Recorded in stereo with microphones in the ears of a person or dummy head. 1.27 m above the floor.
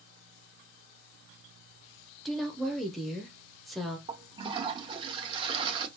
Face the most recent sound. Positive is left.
turn(degrees=-35)  # may be behind; listen again after turning